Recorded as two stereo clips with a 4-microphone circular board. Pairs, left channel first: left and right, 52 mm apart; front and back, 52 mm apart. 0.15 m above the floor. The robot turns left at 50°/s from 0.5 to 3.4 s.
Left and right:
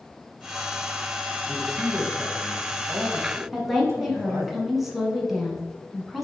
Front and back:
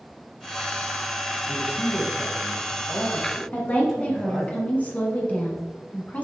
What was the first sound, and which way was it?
A man speaking, 10° left.